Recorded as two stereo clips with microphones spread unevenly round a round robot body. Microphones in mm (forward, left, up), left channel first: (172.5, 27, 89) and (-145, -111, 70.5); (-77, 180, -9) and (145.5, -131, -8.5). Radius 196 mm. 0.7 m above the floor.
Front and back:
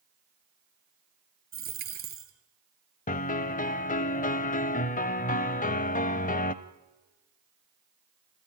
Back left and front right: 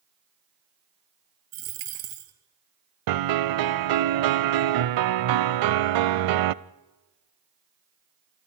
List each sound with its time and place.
1.5 s a dropped coin: 90° right, 2.5 m
3.1 s a piano: 40° right, 0.7 m